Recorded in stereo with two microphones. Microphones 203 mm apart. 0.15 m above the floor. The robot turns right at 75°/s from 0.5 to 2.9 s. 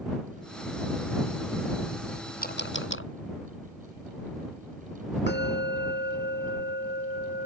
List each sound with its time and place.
2.4 s a camera shutter: 45° left (ahead or behind); by 3.1 s 75° left (ahead or behind)
5.3 s a bell: 60° left (ahead or behind)